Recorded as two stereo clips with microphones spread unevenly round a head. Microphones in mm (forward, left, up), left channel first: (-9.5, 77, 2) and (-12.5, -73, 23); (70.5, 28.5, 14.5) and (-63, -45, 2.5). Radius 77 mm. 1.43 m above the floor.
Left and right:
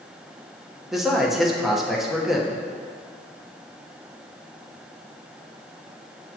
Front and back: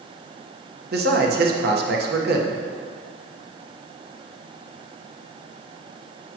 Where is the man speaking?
Straight behind, 1.1 m.